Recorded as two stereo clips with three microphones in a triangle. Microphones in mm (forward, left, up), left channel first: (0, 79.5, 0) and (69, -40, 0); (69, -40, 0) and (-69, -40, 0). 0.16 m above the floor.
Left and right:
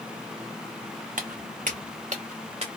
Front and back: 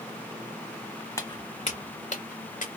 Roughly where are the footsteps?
Right.